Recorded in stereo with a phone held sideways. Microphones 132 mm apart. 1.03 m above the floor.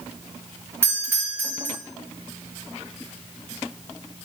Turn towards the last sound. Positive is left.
turn(degrees=-20)  # may be behind; listen again after turning